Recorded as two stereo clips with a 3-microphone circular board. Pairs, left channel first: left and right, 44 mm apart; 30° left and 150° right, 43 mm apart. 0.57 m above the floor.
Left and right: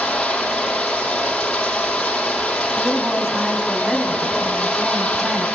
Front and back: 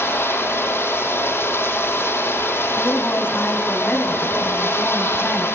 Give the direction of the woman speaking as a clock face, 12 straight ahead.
12 o'clock.